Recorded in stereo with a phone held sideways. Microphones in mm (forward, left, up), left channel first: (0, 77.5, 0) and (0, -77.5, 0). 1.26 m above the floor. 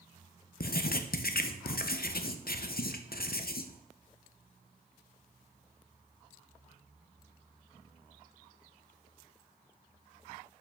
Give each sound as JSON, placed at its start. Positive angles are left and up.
{"t": 0.6, "sound": "writing", "side_deg": 75, "distance_m": 0.5}